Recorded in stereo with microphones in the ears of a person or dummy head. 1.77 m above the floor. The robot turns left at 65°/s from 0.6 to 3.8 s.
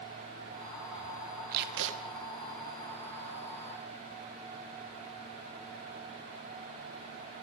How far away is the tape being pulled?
About 2.5 m.